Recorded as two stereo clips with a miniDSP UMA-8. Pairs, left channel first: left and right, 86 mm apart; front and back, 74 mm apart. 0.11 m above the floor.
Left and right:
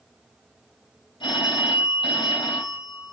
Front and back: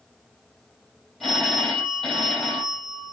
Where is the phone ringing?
85° left, 2.5 m.